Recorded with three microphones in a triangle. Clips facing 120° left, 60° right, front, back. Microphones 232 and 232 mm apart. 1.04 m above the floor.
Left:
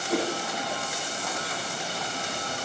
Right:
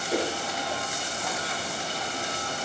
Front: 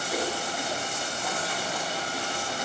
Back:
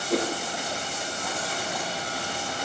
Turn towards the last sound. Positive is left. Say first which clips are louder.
# left 1 dB, back 5 dB
turn(degrees=150)